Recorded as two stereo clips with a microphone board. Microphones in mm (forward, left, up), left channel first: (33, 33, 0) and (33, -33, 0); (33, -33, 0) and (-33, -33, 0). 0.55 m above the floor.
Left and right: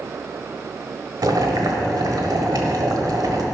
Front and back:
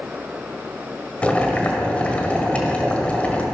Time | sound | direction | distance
1.2 | boiling | 70° right | 1.4 m